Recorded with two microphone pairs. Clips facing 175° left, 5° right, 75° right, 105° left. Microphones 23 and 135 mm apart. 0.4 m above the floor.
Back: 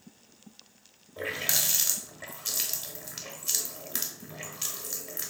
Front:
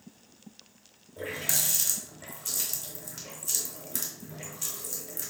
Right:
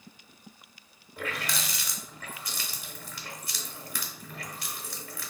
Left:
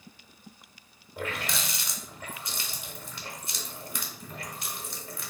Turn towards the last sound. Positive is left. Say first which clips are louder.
# back 2 dB, left 1 dB
turn(degrees=155)